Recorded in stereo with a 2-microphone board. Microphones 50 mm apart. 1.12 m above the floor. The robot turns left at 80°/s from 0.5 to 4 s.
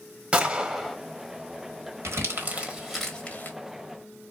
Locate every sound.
0.3 s a gunshot: 150° right, 0.8 m; by 1.0 s 175° left, 0.8 m
2.0 s crumpling: 75° right (ahead or behind), 1.4 m; by 3.6 s 45° left (ahead or behind), 1.4 m